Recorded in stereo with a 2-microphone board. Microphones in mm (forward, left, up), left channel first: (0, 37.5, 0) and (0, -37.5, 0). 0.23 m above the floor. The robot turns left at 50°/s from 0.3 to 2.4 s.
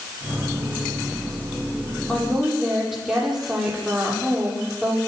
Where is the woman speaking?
15° left (ahead or behind), 7.5 m; by 5.0 s 5° right (ahead or behind), 7.5 m.